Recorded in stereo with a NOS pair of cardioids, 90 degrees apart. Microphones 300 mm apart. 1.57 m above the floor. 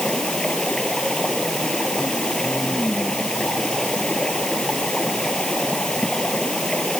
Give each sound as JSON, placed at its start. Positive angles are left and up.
{"t": 0.0, "sound": "running water", "azimuth_deg": 0}